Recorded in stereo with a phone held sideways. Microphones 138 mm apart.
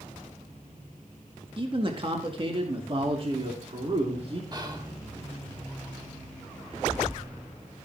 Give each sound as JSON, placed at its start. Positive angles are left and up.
{"t": 1.6, "sound": "a man speaking", "side_deg": -40, "distance_m": 1.9}
{"t": 4.5, "sound": "whispering", "side_deg": -30, "distance_m": 2.5}